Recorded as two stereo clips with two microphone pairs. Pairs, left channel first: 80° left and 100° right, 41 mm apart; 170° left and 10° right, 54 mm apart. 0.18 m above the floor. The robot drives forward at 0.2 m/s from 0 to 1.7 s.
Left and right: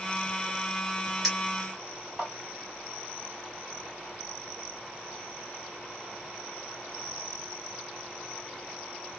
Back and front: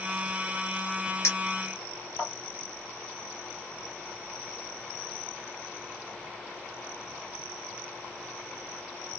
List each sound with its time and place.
1.2 s a clink: 175° right, 2.5 m